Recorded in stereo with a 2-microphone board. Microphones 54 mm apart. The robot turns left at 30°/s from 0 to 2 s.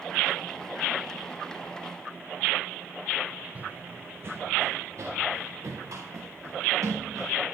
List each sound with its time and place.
3.5 s running footsteps: 25° right (ahead or behind), 1.1 m; by 7.3 s 70° right (ahead or behind), 5 m